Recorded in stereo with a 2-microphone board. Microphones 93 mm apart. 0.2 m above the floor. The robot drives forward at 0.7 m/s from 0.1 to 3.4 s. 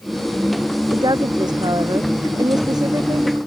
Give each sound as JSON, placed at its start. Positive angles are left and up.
{"t": 0.9, "sound": "a woman speaking", "side_deg": -50}